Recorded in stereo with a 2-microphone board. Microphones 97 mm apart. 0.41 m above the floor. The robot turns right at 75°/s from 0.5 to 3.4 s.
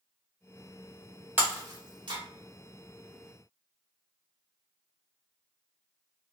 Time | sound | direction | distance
1.4 | breaking glass | 20° right (ahead or behind) | 0.8 m